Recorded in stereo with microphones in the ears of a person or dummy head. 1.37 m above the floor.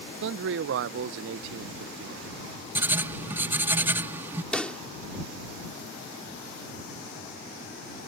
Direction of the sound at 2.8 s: 15° right (ahead or behind).